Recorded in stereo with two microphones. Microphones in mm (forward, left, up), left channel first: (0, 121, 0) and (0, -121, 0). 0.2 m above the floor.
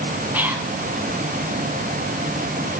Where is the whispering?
5° right (ahead or behind), 1.5 m.